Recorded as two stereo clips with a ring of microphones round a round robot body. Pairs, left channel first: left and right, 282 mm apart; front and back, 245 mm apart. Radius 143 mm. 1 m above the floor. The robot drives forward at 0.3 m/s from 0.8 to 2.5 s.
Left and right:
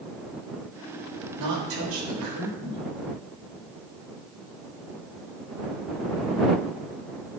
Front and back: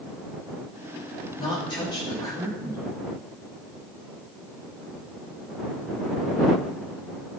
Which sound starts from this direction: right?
A woman speaking, at 1.4 s.